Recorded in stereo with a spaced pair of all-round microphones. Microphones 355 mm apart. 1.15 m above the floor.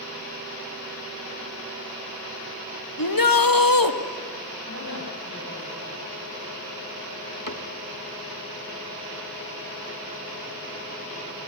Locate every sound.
3.0 s a shout: 70° left (ahead or behind), 1.3 m
4.7 s a woman speaking: 35° left (ahead or behind), 9.5 m
7.5 s a cupboard door: 60° left (ahead or behind), 1.3 m